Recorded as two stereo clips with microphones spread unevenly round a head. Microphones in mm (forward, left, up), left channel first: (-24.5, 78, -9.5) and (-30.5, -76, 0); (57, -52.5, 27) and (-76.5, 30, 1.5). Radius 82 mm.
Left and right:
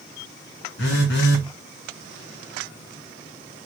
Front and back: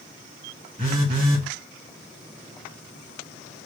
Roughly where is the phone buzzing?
Left.